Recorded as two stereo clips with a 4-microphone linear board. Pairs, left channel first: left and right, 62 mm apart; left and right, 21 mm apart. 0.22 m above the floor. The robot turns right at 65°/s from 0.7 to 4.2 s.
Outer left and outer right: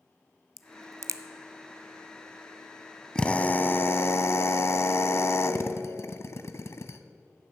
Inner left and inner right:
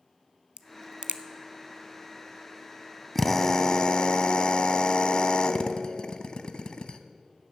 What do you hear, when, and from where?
0.6 s a crack: 65° right (ahead or behind), 0.5 m; by 1.2 s 60° right (ahead or behind), 0.5 m
3.1 s a drill: 20° left, 0.6 m; by 7.0 s 85° left, 0.6 m